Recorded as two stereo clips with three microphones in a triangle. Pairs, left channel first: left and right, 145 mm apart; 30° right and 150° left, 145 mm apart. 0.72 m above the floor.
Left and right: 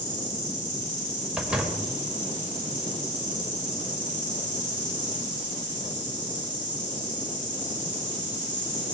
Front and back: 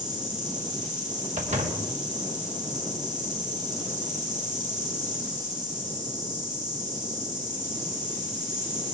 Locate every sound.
0.0 s an insect: 115° left, 6.5 m
1.4 s a door slam: 175° right, 1.9 m